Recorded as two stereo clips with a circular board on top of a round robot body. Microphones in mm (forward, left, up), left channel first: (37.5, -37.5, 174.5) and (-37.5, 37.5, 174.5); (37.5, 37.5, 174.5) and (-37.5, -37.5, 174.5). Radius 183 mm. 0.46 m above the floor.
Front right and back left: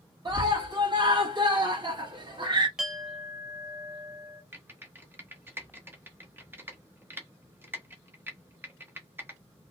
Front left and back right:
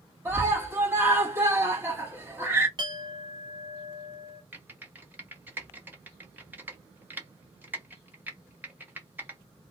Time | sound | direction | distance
0.2 | a scream | 165° left | 1.6 m
2.8 | a clink | 145° right | 0.7 m
4.5 | typing on a keyboard | 175° left | 0.9 m